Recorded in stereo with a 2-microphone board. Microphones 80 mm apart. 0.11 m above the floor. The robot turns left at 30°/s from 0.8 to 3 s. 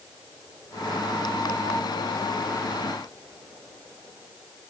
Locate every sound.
Only background noise.